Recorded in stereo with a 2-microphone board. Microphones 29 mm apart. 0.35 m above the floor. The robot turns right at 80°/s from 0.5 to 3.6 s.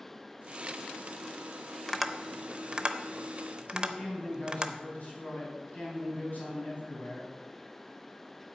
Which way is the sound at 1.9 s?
5° left (ahead or behind).